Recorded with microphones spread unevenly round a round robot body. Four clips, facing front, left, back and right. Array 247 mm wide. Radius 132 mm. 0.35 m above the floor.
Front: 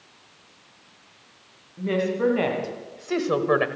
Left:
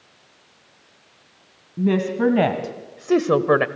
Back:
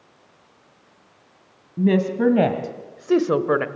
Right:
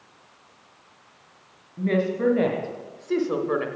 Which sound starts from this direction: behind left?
A woman speaking, at 1.8 s.